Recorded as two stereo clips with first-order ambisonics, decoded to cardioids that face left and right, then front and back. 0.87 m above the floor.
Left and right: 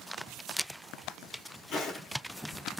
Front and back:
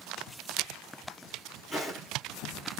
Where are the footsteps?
85° left, 1.2 m.